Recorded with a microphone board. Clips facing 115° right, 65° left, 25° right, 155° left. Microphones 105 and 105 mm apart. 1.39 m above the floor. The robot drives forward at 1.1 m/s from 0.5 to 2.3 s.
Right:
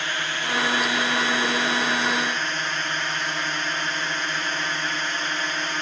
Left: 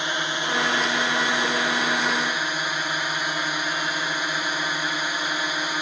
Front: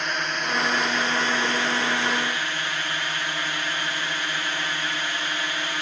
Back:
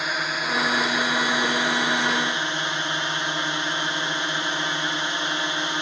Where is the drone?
80° left; by 5.8 s 130° left.